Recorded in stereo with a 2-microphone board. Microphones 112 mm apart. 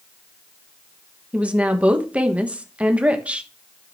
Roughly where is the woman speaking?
Centre.